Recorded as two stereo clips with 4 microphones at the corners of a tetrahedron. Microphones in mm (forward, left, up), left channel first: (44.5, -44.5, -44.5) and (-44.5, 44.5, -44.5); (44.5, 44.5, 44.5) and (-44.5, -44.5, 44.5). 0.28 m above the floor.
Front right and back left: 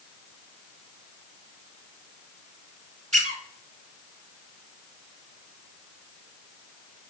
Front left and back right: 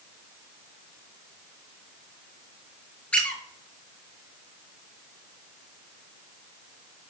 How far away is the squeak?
About 0.7 m.